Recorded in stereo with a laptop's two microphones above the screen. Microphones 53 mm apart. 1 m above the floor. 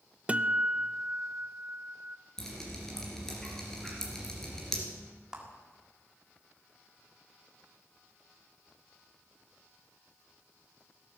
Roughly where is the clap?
Centre.